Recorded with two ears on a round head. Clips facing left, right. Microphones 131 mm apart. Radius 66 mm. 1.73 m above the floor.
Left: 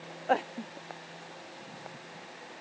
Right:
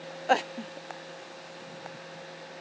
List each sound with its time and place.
Only background noise.